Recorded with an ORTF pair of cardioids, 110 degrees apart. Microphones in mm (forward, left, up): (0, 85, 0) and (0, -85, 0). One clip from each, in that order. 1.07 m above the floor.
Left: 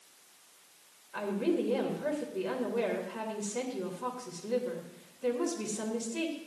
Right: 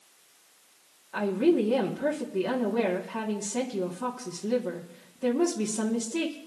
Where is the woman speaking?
65° right, 1.7 m.